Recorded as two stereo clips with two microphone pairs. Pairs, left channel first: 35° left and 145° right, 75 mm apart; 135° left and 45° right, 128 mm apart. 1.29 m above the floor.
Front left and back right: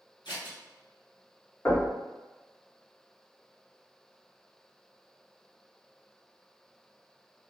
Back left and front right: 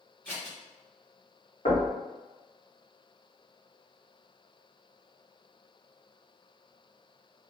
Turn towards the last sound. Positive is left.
turn(degrees=95)